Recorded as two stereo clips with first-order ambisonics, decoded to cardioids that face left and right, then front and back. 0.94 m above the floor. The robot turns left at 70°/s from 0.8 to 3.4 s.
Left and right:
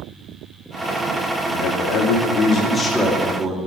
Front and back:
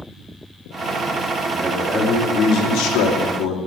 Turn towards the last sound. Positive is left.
turn(degrees=-20)